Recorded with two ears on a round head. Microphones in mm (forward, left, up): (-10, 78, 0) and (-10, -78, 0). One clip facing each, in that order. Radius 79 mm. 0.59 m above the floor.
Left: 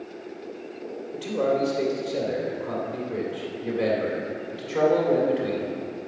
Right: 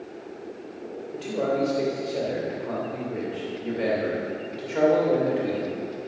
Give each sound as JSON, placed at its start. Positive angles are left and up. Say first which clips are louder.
{"t": 1.1, "sound": "a man speaking", "louder": "left 2 dB", "side_deg": 5, "distance_m": 2.5}